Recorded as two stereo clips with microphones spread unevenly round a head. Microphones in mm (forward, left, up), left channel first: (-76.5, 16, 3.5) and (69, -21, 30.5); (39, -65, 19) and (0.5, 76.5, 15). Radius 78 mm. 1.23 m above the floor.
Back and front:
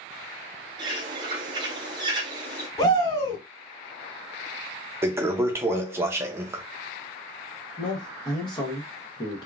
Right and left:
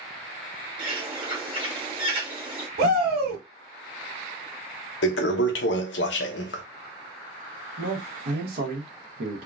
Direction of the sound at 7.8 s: 105° left.